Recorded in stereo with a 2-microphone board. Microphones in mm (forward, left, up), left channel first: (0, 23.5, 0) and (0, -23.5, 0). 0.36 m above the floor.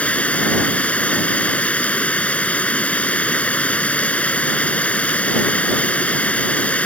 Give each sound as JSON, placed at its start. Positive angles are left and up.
{"t": 0.0, "sound": "running water", "side_deg": 30}